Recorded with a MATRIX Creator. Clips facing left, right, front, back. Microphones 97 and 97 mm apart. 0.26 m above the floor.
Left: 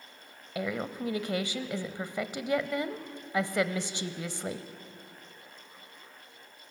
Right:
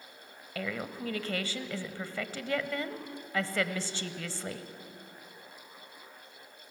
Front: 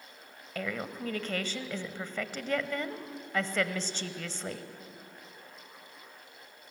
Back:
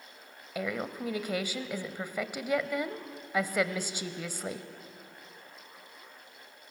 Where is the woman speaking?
120° left, 0.9 m.